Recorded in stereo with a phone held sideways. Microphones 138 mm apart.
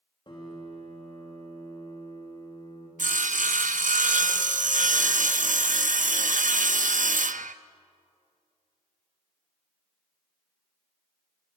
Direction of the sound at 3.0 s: 70° right (ahead or behind).